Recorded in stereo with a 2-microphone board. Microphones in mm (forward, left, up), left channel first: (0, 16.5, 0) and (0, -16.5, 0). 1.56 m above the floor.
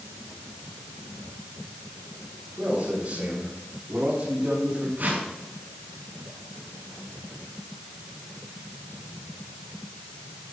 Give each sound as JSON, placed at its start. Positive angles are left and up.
{"t": 2.6, "sound": "a man speaking", "side_deg": -40, "distance_m": 6.5}
{"t": 5.0, "sound": "a whoosh", "side_deg": -60, "distance_m": 6.0}